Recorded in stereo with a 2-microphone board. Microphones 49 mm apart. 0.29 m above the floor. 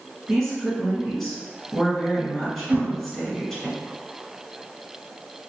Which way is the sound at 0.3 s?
5° left (ahead or behind).